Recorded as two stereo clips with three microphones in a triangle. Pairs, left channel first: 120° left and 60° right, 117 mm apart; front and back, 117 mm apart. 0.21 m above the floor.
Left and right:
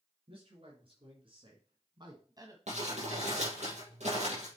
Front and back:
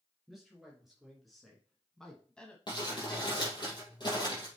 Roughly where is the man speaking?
Right.